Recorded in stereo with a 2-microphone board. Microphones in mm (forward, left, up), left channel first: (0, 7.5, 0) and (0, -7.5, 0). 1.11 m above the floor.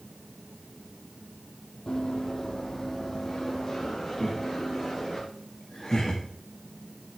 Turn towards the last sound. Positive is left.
turn(degrees=30)  # may be behind; listen again after turning